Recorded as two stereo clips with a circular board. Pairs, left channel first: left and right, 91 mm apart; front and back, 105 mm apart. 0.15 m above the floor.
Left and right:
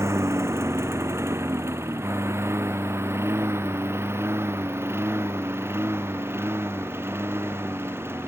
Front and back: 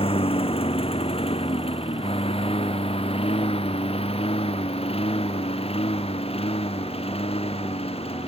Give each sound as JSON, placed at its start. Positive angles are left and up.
{"t": 0.0, "sound": "a lawn mower", "azimuth_deg": -30}